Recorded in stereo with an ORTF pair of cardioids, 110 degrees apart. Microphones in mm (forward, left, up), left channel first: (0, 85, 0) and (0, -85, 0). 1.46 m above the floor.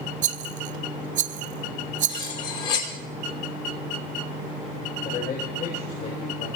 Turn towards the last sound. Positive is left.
turn(degrees=70)